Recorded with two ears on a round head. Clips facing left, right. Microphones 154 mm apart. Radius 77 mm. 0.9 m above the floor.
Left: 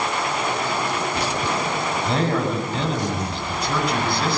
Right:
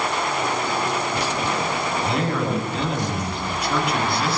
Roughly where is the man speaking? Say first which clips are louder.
Left 3 dB; left.